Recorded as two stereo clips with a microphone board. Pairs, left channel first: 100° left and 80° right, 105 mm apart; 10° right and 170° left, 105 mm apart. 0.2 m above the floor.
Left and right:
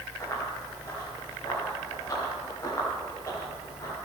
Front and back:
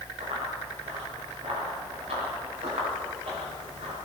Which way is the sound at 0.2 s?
160° left.